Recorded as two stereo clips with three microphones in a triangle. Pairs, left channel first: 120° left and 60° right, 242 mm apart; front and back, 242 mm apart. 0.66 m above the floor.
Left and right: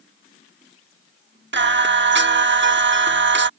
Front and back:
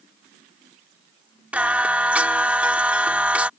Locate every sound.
1.5 s singing: 95° right